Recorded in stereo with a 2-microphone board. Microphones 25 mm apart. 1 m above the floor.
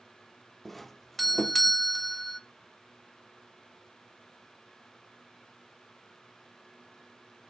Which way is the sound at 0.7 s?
10° left (ahead or behind).